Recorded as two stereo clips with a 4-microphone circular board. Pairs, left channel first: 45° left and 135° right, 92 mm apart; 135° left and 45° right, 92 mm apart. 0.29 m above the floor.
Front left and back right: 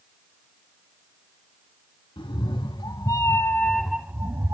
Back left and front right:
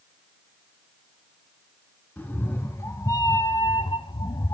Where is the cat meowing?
65° left, 1.0 m; by 4.5 s 175° left, 0.6 m.